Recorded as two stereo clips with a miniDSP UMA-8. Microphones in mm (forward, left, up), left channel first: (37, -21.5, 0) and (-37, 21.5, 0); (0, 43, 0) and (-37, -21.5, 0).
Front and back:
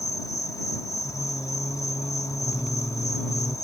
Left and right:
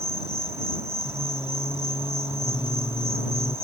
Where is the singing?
50° left.